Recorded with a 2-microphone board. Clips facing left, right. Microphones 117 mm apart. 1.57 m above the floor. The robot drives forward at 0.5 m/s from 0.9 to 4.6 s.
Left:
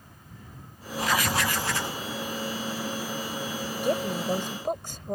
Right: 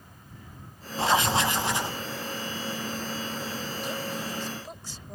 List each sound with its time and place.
1.0 s writing: 30° right (ahead or behind); by 2.0 s 20° right (ahead or behind)
3.8 s a woman speaking: 55° left (ahead or behind)